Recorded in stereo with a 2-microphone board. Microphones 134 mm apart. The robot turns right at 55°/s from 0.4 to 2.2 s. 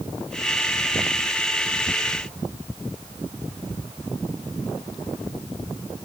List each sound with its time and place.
Only background noise.